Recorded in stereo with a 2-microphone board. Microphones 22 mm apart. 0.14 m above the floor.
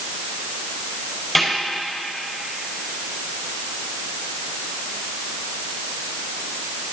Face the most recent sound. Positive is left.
turn(degrees=-5)  # may be behind; listen again after turning